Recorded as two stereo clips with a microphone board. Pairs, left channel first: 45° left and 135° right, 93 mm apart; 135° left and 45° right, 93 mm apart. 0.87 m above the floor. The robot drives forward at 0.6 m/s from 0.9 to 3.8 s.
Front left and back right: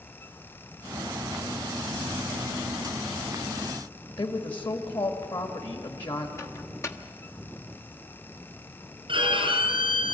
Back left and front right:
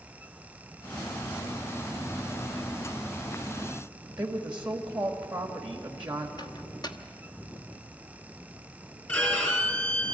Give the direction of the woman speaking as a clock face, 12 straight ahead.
11 o'clock.